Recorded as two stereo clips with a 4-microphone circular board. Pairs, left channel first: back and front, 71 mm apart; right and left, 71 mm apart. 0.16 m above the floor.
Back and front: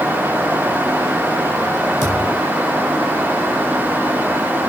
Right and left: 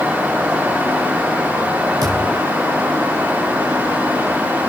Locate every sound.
2.0 s a thud: 125° left, 7 m